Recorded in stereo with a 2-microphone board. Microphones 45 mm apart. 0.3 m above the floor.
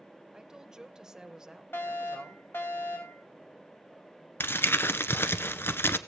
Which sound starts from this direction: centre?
A woman speaking, at 0.3 s.